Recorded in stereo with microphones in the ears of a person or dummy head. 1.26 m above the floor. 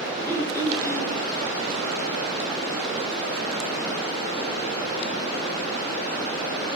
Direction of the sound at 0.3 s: 20° left (ahead or behind).